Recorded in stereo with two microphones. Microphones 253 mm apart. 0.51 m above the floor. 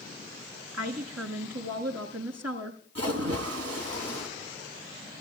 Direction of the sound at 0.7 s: 80° right.